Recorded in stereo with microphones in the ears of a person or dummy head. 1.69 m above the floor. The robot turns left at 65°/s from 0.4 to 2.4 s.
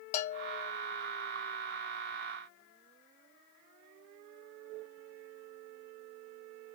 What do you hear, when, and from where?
0.1 s a bell: 45° left (ahead or behind), 0.8 m; by 0.7 s 25° left (ahead or behind), 0.8 m